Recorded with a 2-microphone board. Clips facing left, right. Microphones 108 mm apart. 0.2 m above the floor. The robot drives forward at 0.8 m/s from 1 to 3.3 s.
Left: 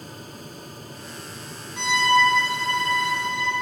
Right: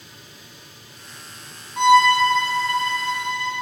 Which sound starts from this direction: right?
A violin, at 1.8 s.